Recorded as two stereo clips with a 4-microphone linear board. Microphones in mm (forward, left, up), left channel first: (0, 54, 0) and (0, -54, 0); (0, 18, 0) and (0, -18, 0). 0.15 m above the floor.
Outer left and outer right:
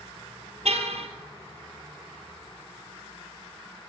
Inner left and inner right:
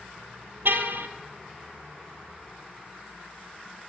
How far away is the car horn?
About 2 m.